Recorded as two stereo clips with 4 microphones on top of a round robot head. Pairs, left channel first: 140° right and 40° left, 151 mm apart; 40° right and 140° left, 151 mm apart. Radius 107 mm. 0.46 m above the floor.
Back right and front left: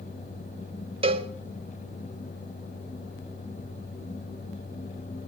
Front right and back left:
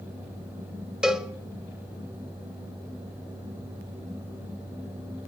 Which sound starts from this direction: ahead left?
A cowbell, at 1.0 s.